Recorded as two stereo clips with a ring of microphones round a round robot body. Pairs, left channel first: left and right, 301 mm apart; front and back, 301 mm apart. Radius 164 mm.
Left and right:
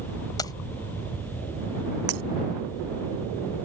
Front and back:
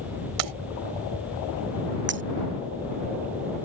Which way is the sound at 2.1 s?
125° right.